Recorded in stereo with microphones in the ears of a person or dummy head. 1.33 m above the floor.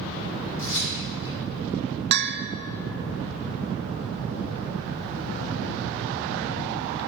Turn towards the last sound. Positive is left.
turn(degrees=-55)  # may be behind; listen again after turning